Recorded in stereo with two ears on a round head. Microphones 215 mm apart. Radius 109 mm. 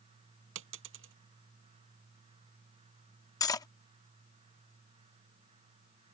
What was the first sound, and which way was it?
A dropped coin, 55° right (ahead or behind).